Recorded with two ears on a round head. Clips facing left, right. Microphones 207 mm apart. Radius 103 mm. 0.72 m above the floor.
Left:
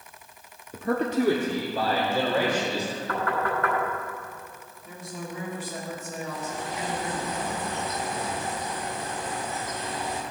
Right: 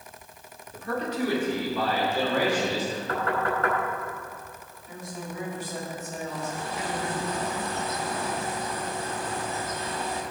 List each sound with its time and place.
0.7 s a man speaking: 55° left (ahead or behind), 0.9 m; by 3.0 s 20° left (ahead or behind), 4 m
3.1 s knocking: 30° right (ahead or behind), 5 m
4.8 s a woman speaking: 75° left (ahead or behind), 4.5 m
6.3 s a bird: 20° left (ahead or behind), 2.5 m